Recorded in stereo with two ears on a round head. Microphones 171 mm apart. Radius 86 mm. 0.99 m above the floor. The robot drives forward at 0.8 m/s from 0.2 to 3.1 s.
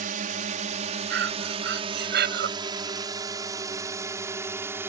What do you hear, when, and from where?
0.0 s a drone: 45° right (ahead or behind); by 4.9 s 15° right (ahead or behind)
1.1 s breathing: 70° right (ahead or behind); by 2.5 s 60° right (ahead or behind)